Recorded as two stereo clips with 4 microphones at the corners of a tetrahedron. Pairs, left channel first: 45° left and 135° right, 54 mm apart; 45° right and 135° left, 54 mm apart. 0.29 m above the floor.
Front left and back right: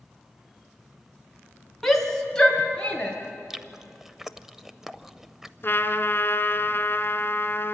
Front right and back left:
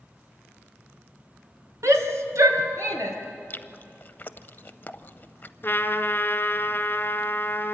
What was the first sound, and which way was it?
A shout, 130° left.